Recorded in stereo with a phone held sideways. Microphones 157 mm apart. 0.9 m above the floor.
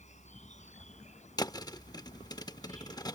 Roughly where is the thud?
Left.